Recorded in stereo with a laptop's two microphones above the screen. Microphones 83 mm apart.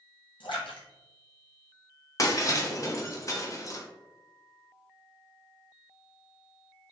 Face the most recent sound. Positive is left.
turn(degrees=40)  # may be behind; listen again after turning